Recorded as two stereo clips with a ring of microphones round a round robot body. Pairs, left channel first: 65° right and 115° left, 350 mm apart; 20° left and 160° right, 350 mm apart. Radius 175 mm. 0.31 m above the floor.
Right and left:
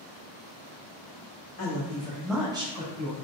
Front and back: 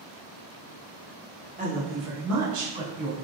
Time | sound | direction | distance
1.6 | a woman speaking | 95° right | 1.3 m